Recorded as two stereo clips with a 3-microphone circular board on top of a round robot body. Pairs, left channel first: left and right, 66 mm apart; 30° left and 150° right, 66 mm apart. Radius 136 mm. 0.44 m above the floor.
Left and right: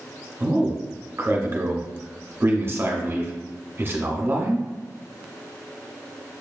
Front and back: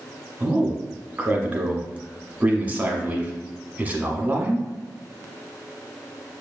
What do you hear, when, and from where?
0.4 s a man speaking: 100° right, 1.1 m